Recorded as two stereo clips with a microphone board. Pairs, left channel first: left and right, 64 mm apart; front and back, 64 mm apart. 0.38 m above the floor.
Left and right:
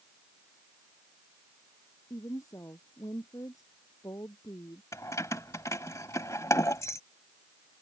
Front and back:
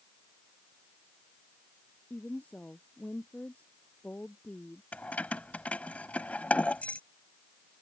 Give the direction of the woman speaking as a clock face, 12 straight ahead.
10 o'clock.